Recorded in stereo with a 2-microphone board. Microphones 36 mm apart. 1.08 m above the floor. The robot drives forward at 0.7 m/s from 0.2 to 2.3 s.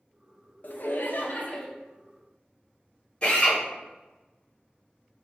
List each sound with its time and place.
0.6 s laughter: 50° left (ahead or behind), 0.6 m; by 1.7 s 40° left (ahead or behind), 0.7 m
3.2 s a drill: 30° left (ahead or behind), 1.8 m